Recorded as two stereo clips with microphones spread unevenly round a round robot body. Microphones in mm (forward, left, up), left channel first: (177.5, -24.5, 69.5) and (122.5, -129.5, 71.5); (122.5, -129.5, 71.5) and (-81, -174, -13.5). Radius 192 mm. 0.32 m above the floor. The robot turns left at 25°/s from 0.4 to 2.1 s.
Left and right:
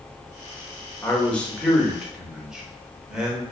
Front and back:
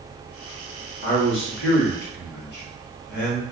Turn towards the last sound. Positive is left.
turn(degrees=-35)